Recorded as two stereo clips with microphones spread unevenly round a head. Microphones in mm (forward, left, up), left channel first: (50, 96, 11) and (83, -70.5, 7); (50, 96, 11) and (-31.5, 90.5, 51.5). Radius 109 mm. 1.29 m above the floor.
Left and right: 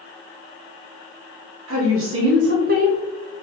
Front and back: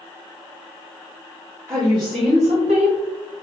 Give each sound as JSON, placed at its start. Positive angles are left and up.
{"t": 1.7, "sound": "a woman speaking", "azimuth_deg": -100, "distance_m": 1.2}